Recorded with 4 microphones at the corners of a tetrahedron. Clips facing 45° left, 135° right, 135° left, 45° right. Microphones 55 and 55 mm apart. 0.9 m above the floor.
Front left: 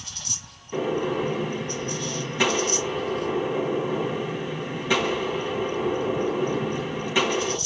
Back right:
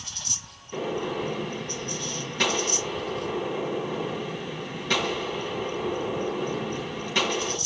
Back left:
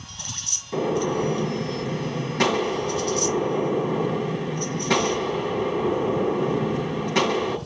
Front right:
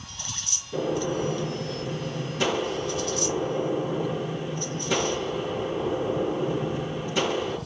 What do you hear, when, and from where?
0.7 s a gunshot: 125° left, 5 m